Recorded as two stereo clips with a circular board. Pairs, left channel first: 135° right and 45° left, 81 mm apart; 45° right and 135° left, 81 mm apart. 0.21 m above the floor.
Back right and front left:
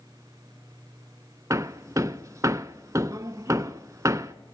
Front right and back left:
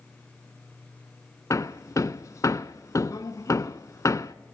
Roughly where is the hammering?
Ahead.